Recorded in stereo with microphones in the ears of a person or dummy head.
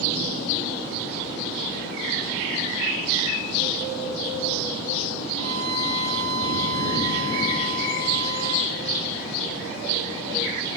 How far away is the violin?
About 2 m.